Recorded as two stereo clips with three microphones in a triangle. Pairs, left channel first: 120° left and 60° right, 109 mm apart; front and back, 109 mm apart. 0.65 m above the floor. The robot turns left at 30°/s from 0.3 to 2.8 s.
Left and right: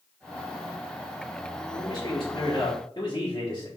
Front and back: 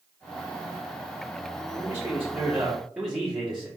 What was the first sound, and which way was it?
A man speaking, 130° left.